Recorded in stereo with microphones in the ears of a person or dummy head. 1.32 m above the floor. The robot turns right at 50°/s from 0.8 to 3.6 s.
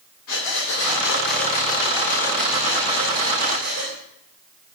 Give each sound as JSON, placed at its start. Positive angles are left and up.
{"t": 0.3, "sound": "breathing", "azimuth_deg": 95, "distance_m": 2.0}